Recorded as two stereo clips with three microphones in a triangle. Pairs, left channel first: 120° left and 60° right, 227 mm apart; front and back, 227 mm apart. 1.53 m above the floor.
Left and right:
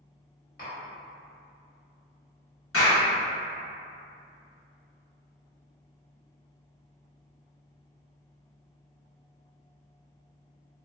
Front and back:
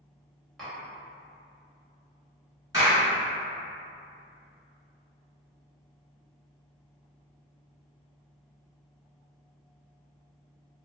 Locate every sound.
0.6 s tapping: 90° left, 1.6 m
2.7 s a clap: 105° left, 1.5 m